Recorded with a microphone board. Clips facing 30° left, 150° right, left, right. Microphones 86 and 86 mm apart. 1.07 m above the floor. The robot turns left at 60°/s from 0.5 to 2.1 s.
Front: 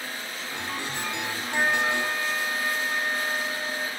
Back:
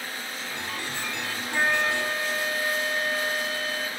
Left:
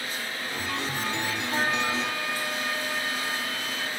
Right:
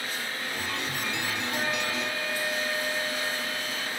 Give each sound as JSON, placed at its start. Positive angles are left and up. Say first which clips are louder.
{"t": 1.5, "sound": "a flute", "louder": "even, left 5 dB", "azimuth_deg": 120, "distance_m": 1.5}